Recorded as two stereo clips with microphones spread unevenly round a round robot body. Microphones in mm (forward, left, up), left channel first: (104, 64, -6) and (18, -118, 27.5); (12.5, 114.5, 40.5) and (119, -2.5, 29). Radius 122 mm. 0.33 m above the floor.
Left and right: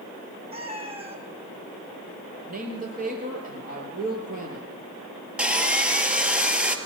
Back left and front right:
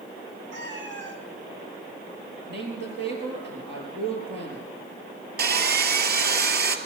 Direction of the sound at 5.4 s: 30° right.